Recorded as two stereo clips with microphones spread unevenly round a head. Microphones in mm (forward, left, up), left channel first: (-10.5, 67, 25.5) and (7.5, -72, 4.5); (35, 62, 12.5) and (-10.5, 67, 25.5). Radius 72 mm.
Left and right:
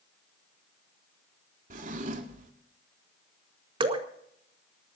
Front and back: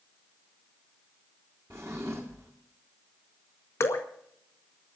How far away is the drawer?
About 1.6 m.